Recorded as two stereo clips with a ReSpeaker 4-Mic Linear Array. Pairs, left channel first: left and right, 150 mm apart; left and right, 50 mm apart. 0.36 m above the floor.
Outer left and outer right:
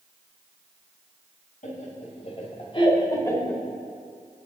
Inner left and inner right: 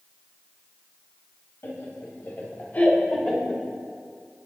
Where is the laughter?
55° left (ahead or behind), 2.5 m; by 3.6 s 5° left (ahead or behind), 1.5 m.